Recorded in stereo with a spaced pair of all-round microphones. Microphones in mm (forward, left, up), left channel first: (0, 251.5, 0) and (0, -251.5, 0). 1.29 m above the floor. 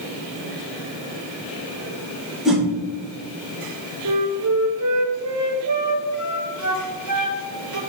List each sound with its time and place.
2.5 s a whoosh: centre (ahead or behind), 2 m
4.0 s a flute: 35° right (ahead or behind), 0.8 m